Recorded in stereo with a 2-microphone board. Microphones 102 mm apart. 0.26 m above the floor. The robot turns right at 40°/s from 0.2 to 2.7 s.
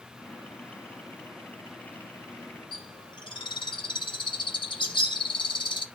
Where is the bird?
55° left (ahead or behind), 0.8 m.